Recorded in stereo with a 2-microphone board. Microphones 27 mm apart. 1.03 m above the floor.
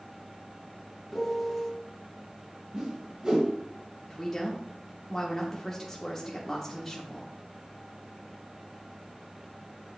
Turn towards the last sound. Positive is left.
turn(degrees=15)  # may be behind; listen again after turning